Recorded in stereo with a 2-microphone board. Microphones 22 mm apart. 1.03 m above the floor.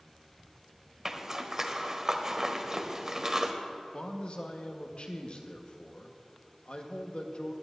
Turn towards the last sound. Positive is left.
turn(degrees=55)  # may be behind; listen again after turning